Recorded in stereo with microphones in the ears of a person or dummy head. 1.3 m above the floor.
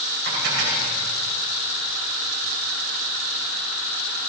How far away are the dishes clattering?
About 4 m.